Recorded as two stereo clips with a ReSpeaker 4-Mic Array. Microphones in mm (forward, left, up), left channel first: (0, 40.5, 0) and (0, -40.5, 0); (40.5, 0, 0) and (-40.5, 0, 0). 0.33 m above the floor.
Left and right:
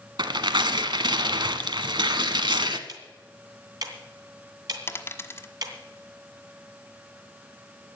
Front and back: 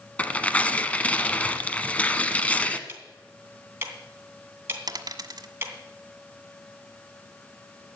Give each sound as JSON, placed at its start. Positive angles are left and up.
{"t": 0.2, "sound": "tearing paper", "azimuth_deg": -75, "distance_m": 1.0}
{"t": 2.9, "sound": "ticking", "azimuth_deg": -120, "distance_m": 2.5}
{"t": 4.9, "sound": "a dropped coin", "azimuth_deg": 145, "distance_m": 1.2}